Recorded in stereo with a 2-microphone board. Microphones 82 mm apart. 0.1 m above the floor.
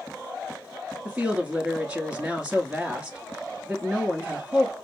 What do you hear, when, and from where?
1.1 s a woman speaking: 10° right (ahead or behind), 1.3 m